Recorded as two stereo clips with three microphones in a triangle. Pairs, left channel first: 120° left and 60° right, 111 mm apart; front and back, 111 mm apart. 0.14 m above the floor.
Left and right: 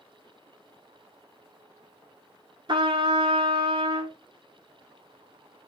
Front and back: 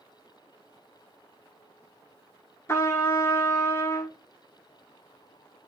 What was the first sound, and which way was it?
A trumpet, 50° right.